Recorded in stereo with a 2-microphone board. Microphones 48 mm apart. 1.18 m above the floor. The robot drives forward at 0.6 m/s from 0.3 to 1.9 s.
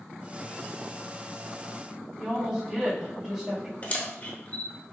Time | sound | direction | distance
2.2 | a woman speaking | 15° right (ahead or behind) | 1.5 m
3.8 | a camera shutter | 30° left (ahead or behind) | 1.1 m